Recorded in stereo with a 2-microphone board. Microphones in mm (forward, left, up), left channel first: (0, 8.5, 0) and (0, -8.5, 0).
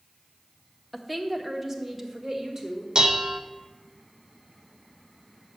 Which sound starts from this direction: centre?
A woman speaking, at 0.9 s.